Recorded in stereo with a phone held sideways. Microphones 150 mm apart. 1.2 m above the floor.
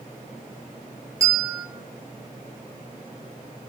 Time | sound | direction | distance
1.2 | a bell | 20° right (ahead or behind) | 1.0 m